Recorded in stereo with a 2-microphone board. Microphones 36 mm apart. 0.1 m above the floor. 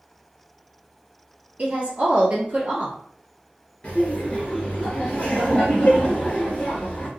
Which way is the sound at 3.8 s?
30° left (ahead or behind).